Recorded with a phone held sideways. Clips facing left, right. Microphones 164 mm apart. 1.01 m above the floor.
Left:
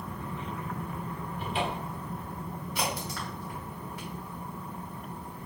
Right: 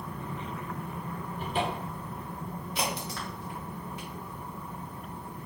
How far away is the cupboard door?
About 0.8 m.